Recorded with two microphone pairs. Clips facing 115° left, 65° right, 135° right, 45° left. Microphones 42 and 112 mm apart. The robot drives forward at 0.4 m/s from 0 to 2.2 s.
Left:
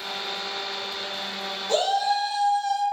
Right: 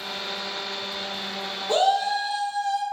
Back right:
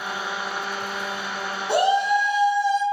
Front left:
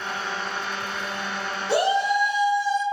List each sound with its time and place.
1.7 s a shout: 140° right, 1.9 m; by 2.8 s 145° right, 2 m